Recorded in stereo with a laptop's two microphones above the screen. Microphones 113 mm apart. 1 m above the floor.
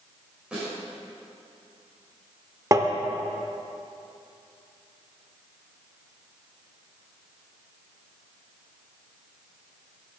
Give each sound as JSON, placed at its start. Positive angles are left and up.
{"t": 0.5, "sound": "a snare drum", "side_deg": -10, "distance_m": 3.5}
{"t": 2.7, "sound": "tapping", "side_deg": -30, "distance_m": 0.7}